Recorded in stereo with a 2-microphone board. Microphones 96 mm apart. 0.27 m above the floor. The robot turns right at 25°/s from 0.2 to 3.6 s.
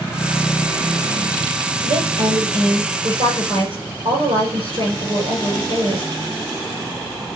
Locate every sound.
1.8 s a woman speaking: 120° right, 6 m; by 6.1 s 75° right, 6 m